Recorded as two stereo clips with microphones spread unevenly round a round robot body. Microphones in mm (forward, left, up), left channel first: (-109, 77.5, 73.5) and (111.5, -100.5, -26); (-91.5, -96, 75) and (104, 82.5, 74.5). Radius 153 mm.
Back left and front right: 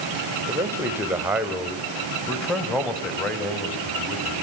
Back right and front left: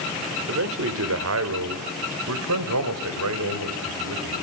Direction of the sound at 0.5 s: 25° left.